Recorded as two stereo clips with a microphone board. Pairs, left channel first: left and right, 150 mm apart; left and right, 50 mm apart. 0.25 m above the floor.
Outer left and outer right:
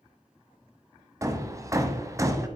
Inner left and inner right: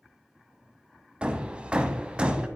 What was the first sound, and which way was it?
Hammering, 20° right (ahead or behind).